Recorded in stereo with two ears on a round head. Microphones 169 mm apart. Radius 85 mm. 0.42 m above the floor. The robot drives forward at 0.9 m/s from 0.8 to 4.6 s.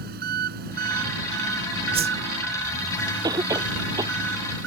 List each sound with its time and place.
0.0 s an engine running: 55° right (ahead or behind); by 4.7 s 70° right (ahead or behind)
1.9 s a whoosh: 30° right (ahead or behind); by 2.1 s 40° right (ahead or behind)
3.2 s a cough: 20° right (ahead or behind)